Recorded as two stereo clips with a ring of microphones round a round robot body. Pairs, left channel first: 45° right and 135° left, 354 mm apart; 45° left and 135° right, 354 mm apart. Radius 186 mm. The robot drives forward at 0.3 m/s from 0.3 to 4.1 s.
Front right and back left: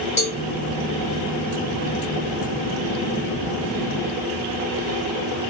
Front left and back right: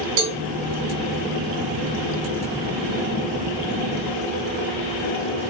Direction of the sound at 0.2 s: 120° right.